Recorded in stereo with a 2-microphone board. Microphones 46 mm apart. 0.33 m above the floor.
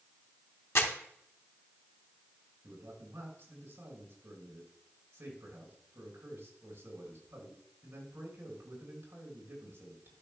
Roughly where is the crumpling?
Left.